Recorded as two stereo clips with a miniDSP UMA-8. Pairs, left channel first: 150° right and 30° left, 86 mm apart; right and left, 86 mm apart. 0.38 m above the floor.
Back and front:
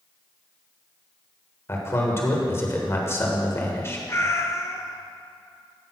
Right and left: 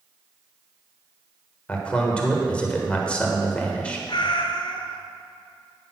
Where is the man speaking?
155° right, 1.4 m.